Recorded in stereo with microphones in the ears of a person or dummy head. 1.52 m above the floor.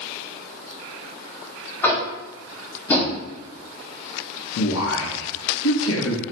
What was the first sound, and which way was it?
Tapping, 10° left (ahead or behind).